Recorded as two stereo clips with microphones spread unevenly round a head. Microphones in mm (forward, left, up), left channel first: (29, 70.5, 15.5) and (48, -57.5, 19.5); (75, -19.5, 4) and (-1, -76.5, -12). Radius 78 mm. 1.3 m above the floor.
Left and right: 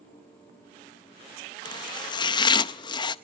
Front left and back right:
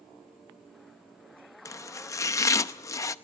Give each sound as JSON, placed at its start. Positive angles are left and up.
{"t": 1.6, "sound": "chopping", "azimuth_deg": 55, "distance_m": 0.7}